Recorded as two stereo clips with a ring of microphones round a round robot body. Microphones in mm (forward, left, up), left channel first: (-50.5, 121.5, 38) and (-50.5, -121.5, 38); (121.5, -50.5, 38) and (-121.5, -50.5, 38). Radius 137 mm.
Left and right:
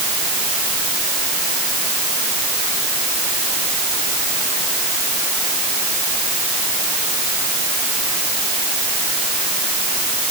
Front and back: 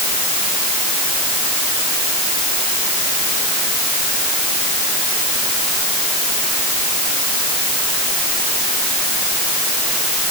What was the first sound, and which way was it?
Only background noise.